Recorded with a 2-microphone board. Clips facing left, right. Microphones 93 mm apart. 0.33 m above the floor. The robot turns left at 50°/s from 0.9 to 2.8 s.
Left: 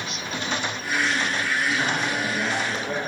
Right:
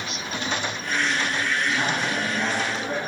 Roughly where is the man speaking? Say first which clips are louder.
Even; right.